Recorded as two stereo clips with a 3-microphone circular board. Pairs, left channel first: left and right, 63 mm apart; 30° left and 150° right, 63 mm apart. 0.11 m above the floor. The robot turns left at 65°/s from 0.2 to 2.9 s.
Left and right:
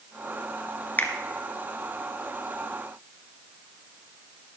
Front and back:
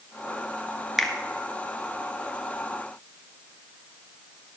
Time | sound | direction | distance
1.0 | a finger snap | 120° left | 1.1 m